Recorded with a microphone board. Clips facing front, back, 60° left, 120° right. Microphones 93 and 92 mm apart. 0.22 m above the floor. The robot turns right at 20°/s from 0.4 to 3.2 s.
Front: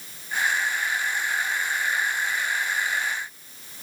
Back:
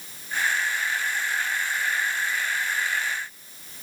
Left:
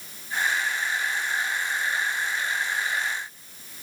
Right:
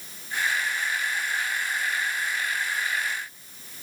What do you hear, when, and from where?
Only background noise.